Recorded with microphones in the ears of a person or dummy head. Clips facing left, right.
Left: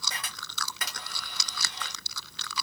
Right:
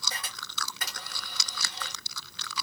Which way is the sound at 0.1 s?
55° left (ahead or behind).